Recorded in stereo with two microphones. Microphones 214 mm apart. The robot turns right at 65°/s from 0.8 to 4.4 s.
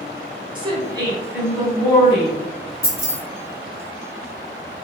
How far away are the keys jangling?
About 1.1 m.